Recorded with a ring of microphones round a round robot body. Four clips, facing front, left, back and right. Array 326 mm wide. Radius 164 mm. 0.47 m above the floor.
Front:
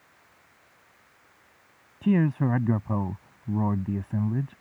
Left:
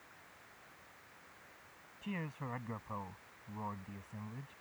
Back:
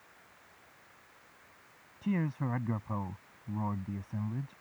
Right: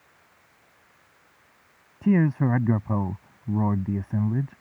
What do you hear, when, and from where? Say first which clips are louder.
2.0 s a man speaking: right 22 dB, front 10 dB; 60° right